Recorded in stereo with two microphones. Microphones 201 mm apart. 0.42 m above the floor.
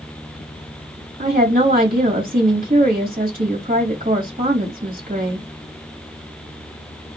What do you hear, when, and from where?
1.2 s a woman speaking: 45° right (ahead or behind), 2 m